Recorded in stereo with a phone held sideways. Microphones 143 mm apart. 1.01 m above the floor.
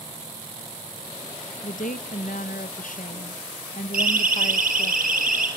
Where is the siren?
85° right, 4.5 m; by 5.5 s 75° right (ahead or behind), 5.5 m.